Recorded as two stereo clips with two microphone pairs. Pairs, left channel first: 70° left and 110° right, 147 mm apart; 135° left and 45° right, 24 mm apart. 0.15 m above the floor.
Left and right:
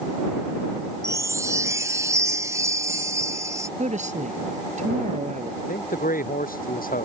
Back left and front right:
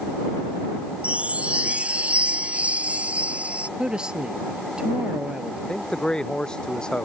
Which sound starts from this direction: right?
A woman speaking, at 3.8 s.